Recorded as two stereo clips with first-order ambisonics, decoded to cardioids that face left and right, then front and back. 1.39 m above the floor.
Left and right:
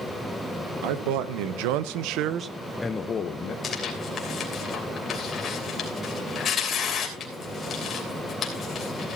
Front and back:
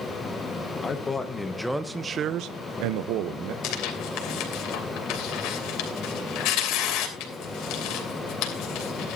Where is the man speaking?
75° right, 1.6 m; by 3.5 s 145° left, 1.2 m.